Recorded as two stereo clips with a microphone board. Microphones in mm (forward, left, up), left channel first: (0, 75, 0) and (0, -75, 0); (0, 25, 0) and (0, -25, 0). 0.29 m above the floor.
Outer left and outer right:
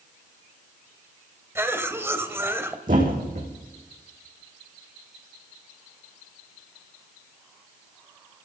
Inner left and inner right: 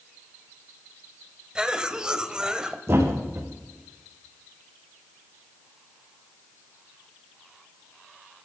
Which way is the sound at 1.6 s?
15° right (ahead or behind).